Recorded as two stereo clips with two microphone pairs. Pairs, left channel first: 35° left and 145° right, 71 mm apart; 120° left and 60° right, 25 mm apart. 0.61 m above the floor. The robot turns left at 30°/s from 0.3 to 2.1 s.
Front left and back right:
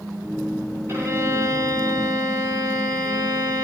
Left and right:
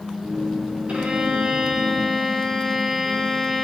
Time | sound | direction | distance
0.9 | a violin | 85° right | 4 m